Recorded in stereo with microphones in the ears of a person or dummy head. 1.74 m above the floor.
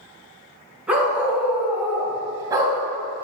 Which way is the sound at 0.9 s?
10° right (ahead or behind).